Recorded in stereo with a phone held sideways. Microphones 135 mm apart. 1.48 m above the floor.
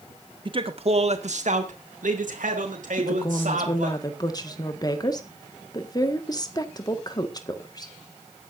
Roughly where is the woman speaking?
Left.